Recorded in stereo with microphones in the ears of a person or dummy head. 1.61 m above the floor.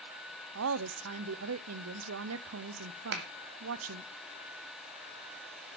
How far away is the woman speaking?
About 0.7 m.